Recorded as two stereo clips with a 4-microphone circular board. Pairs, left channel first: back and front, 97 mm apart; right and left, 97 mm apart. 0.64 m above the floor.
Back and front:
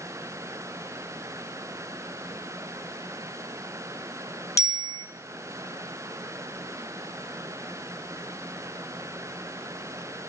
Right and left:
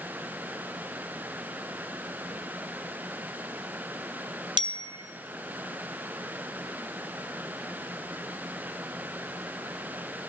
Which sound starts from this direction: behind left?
A bicycle bell, at 4.6 s.